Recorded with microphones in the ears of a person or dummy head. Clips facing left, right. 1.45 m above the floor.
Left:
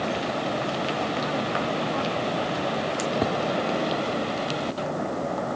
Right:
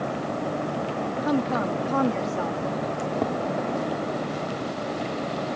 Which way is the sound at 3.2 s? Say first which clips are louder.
Even; 5° left (ahead or behind).